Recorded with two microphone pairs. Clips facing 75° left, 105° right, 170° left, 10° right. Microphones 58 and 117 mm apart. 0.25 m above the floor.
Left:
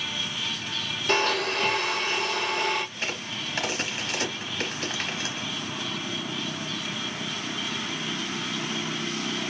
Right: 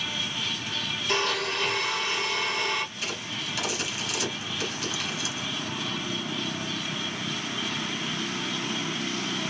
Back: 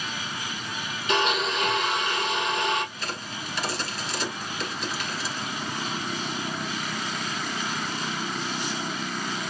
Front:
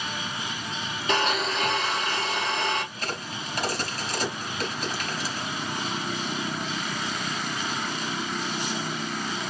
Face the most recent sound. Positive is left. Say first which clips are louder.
# left 1 dB, front 1 dB
turn(degrees=35)